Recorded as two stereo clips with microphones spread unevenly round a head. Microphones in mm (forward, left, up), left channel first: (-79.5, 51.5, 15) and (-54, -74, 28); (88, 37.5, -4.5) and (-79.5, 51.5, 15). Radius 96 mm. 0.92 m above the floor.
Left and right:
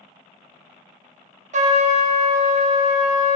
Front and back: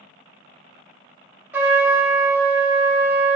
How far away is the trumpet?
About 0.7 m.